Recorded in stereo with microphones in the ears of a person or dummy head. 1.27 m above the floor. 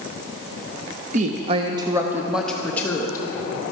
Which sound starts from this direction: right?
A woman speaking, at 1.1 s.